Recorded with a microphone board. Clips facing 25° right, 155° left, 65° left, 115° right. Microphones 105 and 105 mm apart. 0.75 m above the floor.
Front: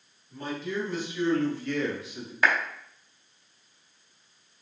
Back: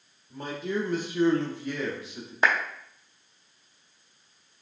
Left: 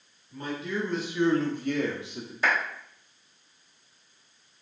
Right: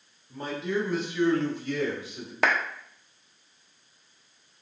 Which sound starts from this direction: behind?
A man speaking, at 0.3 s.